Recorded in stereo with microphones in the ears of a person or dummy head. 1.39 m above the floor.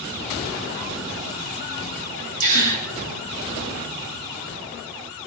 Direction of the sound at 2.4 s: 70° right (ahead or behind).